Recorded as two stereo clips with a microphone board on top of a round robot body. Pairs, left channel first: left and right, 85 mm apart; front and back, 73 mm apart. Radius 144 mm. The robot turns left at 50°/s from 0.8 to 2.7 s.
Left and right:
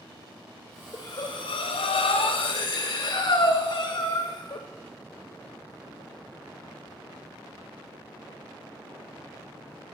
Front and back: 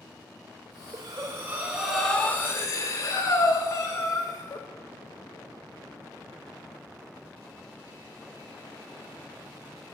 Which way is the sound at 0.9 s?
140° left.